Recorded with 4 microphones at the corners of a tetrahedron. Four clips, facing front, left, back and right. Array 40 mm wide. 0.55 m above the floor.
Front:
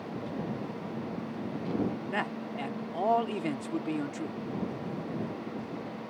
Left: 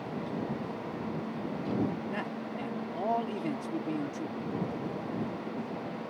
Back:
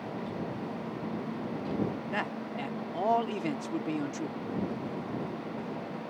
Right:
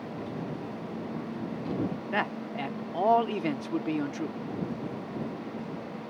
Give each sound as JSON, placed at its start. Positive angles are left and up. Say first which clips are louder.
{"t": 2.1, "sound": "a man speaking", "louder": "right 5 dB, even", "azimuth_deg": -75}